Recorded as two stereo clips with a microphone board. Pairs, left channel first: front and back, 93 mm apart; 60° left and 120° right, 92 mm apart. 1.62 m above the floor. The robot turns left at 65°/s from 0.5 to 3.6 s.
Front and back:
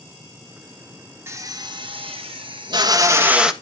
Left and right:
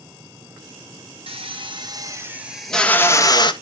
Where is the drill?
120° right, 1.5 m; by 3.5 s 95° left, 1.5 m.